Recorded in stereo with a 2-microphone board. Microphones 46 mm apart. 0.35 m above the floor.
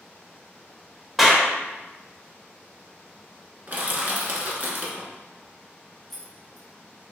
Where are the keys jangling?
10° left (ahead or behind), 0.6 m.